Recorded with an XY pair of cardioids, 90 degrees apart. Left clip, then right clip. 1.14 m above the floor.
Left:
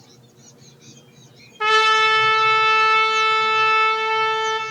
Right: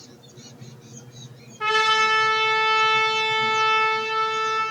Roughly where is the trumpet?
Ahead left.